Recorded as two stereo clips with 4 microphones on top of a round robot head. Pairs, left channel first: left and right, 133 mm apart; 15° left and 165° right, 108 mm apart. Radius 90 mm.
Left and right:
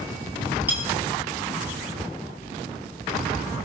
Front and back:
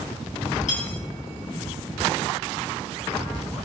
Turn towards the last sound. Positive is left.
turn(degrees=-15)